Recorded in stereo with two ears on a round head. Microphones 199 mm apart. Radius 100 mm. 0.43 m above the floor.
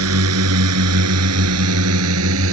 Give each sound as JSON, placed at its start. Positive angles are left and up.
{"t": 0.0, "sound": "a drone", "side_deg": -75}